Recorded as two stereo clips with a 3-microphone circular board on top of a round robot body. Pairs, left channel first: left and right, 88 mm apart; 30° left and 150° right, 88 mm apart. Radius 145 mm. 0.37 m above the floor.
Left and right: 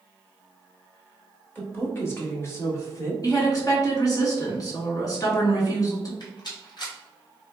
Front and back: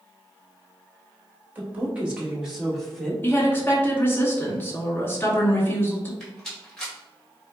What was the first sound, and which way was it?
A woman speaking, 145° left.